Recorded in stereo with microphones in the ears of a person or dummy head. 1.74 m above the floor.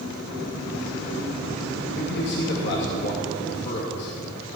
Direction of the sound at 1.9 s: 60° left (ahead or behind).